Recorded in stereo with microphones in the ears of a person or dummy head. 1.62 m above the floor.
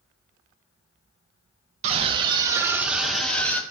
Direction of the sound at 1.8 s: 40° right (ahead or behind).